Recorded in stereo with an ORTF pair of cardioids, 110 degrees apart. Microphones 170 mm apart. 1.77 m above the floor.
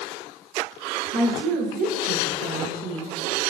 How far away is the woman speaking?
About 0.7 m.